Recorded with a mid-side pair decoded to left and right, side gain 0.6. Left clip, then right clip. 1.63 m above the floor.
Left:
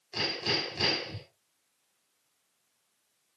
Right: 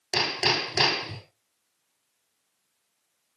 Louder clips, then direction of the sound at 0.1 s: Right 6 dB; 65° right.